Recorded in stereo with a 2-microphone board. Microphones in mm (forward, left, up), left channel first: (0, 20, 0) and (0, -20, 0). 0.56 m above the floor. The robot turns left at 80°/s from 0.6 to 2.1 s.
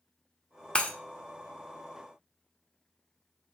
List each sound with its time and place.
0.8 s breaking glass: 20° left (ahead or behind), 0.6 m; by 0.9 s 35° left (ahead or behind), 0.6 m